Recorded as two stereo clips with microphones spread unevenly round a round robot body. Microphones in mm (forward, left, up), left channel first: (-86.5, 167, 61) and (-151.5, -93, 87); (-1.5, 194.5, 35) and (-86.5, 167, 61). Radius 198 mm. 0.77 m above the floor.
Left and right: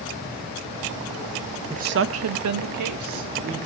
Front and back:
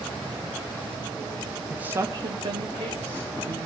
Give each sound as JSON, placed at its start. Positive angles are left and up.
{"t": 1.7, "sound": "a woman speaking", "azimuth_deg": -50, "distance_m": 0.7}